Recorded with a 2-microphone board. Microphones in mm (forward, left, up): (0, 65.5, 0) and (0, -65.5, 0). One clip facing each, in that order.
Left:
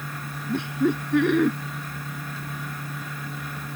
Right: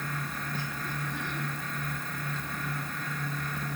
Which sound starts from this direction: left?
Laughter, at 0.5 s.